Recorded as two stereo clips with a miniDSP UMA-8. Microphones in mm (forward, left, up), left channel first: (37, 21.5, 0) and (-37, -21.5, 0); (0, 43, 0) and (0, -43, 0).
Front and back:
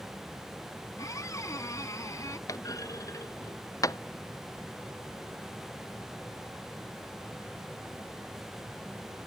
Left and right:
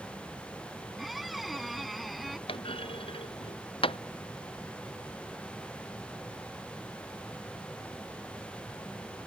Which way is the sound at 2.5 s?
80° left.